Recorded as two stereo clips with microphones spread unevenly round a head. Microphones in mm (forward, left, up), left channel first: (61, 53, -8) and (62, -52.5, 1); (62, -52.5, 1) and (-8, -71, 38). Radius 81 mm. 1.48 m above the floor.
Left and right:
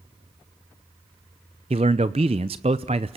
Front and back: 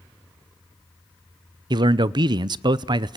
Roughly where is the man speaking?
Behind right.